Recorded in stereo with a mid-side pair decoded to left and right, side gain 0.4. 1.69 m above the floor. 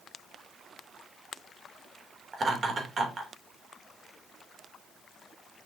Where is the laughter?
45° right, 3 m.